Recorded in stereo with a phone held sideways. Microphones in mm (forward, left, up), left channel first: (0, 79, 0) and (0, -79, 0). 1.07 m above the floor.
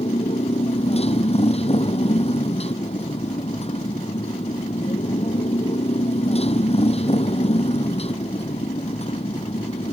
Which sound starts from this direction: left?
A motorcycle, at 0.0 s.